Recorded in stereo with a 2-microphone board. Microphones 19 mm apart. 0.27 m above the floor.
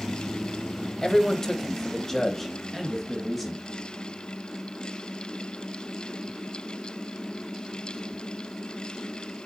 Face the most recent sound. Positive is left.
turn(degrees=5)  # may be behind; listen again after turning